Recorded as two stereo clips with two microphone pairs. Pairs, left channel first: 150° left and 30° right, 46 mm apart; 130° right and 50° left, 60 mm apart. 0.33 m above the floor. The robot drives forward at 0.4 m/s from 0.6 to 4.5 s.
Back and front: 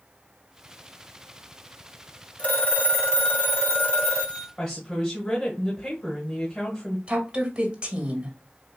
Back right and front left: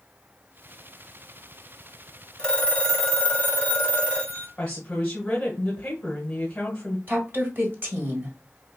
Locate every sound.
2.4 s a phone ringing: 160° left, 0.9 m; by 4.5 s 170° left, 1.5 m
4.6 s a woman speaking: 175° right, 1.0 m
7.1 s a woman speaking: 30° left, 1.4 m